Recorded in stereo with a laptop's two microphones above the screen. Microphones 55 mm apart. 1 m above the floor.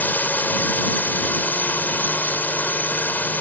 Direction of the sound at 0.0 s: 30° left (ahead or behind).